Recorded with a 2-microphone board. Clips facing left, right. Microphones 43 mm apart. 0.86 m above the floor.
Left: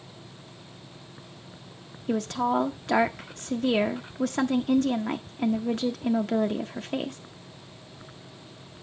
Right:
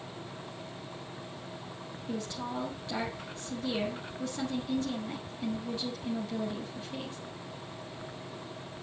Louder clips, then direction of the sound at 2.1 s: Left 11 dB; 65° left (ahead or behind).